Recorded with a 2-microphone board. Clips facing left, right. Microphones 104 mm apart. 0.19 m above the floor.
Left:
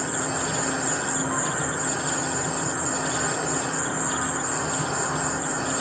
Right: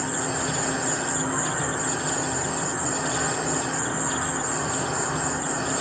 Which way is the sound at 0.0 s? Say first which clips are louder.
Even; 15° left (ahead or behind).